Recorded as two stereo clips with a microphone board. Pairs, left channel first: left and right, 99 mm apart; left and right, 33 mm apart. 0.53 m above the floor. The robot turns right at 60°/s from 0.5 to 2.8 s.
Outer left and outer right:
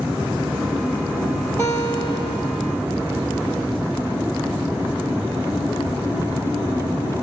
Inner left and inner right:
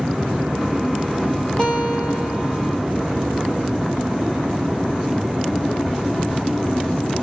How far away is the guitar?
About 1.4 m.